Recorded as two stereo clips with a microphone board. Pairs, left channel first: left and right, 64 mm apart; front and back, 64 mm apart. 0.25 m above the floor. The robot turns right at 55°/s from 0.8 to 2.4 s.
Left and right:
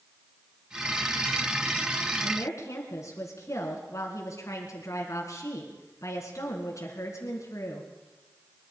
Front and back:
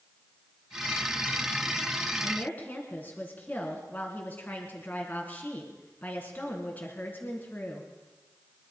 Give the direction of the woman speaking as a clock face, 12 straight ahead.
10 o'clock.